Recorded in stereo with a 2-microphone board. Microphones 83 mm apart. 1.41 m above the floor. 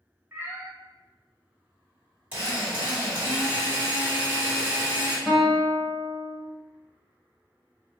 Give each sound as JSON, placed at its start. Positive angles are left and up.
{"t": 0.3, "sound": "a cat meowing", "side_deg": -25, "distance_m": 1.0}
{"t": 2.3, "sound": "a drill", "side_deg": -20, "distance_m": 1.8}
{"t": 5.3, "sound": "a guitar", "side_deg": 0, "distance_m": 1.1}